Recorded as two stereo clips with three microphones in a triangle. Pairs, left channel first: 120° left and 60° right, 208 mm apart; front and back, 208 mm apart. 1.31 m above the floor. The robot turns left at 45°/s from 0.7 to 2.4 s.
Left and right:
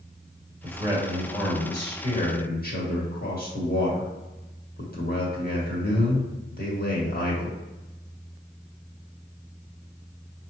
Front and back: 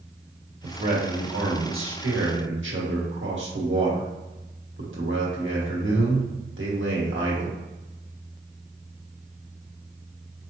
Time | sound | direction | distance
0.6 | a man speaking | 120° right | 1.7 m